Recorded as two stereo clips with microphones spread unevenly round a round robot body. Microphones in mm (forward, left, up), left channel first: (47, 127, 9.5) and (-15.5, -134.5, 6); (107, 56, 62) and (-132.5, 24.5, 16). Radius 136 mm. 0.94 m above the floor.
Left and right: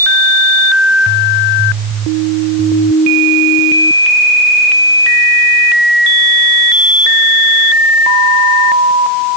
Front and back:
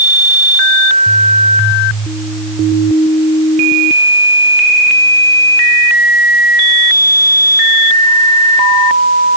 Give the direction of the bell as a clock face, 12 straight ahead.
I don't hear a bell.